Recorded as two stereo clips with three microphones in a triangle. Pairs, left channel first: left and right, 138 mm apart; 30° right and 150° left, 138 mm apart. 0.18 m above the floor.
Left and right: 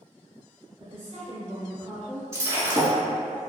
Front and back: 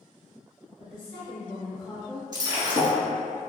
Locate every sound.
0.8 s a woman speaking: 65° right, 1.4 m
2.3 s breaking glass: 150° right, 0.8 m